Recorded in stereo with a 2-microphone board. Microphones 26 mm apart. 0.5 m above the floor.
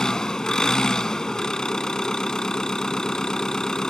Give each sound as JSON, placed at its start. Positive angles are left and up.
{"t": 0.0, "sound": "an engine running", "side_deg": 30}